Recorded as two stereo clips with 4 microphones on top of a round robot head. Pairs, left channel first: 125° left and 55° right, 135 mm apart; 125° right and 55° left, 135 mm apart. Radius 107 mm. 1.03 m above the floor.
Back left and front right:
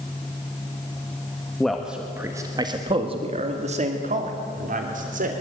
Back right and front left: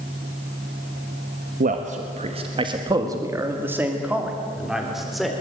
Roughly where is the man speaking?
Ahead left.